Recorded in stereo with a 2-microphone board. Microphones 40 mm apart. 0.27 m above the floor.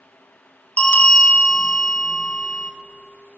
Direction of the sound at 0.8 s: 45° left (ahead or behind).